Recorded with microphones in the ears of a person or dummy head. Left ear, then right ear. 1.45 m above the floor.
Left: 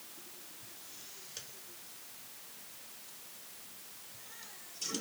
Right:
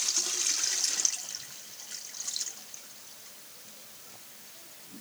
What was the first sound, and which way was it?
Only background noise.